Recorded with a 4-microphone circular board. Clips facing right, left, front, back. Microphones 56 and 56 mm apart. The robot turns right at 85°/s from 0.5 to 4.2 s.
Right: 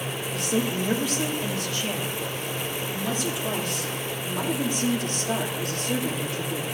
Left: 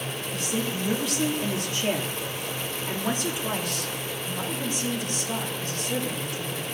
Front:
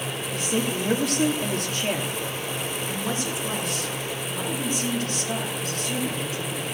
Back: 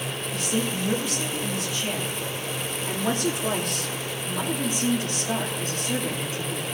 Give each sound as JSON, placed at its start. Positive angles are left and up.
{"t": 0.3, "sound": "a woman speaking", "azimuth_deg": -55, "distance_m": 2.5}